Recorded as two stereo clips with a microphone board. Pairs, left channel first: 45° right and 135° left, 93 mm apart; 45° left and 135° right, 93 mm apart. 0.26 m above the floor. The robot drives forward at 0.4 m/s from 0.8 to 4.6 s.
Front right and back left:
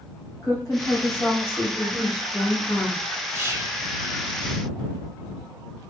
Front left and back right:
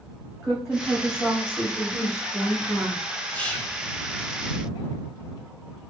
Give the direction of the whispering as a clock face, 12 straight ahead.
9 o'clock.